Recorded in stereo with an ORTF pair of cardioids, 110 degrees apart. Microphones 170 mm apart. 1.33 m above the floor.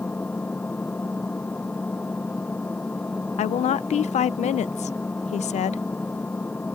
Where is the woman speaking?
40° left.